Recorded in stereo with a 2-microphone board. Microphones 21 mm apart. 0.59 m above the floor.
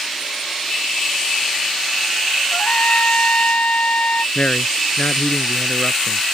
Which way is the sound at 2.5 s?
80° left.